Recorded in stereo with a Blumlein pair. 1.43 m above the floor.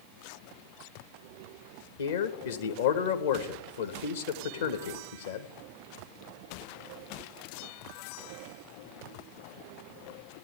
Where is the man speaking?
60° left, 1.3 m.